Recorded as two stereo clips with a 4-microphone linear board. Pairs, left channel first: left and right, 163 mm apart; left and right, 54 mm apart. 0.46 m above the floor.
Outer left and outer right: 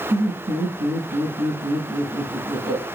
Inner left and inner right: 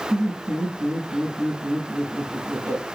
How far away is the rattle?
No rattle in this recording.